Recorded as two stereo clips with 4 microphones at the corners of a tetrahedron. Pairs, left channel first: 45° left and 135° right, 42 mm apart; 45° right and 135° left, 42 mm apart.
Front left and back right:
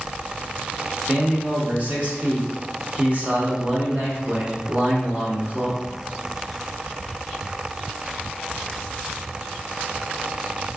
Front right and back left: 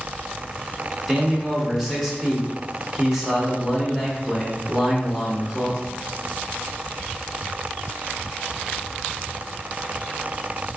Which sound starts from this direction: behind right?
A man speaking, at 1.1 s.